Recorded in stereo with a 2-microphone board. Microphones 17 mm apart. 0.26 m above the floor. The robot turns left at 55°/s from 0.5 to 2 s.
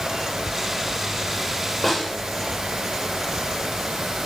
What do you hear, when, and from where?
1.8 s a snare drum: centre (ahead or behind), 8.5 m; by 2.1 s 10° right (ahead or behind), 8.5 m